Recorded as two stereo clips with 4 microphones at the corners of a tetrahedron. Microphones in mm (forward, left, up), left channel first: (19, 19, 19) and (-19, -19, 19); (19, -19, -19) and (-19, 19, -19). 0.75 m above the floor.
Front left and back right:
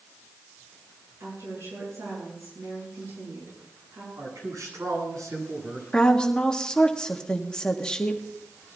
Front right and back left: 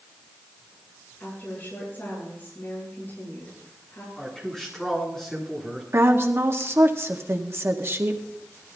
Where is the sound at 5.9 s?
115° left, 1.5 m.